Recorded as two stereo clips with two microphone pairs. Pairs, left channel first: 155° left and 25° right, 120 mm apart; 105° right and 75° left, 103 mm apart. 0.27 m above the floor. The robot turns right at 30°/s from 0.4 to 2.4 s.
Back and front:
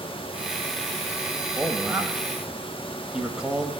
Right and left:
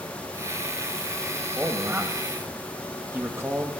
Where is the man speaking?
25° left, 1.1 m; by 3.7 s 50° left, 1.1 m.